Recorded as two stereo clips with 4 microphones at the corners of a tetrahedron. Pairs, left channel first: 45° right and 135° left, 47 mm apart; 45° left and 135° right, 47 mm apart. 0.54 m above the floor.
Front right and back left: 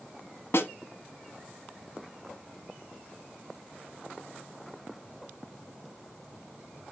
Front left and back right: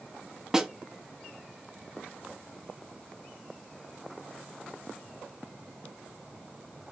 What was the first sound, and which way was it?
A snare drum, 60° right.